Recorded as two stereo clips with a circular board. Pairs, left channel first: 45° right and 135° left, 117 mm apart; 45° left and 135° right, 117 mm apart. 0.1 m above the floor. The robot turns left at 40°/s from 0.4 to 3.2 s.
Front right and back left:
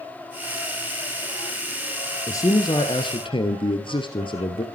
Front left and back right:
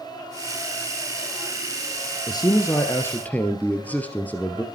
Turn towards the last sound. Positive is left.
turn(degrees=-25)